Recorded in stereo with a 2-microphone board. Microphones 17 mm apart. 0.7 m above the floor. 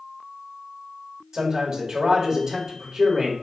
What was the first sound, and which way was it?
A man speaking, 45° right (ahead or behind).